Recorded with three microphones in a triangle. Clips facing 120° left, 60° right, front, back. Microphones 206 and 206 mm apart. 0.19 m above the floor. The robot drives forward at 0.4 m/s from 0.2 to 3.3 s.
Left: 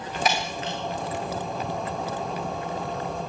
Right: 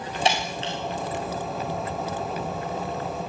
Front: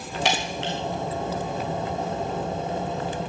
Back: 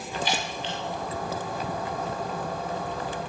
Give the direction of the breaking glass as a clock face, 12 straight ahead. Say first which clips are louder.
Right 2 dB, front 4 dB; 12 o'clock.